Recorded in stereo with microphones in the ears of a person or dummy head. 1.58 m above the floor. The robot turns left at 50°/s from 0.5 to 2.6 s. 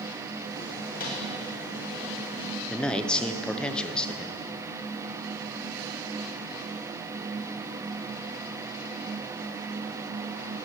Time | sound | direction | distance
0.9 | a microwave | 45° left (ahead or behind) | 2 m
2.7 | a man speaking | 5° left (ahead or behind) | 0.8 m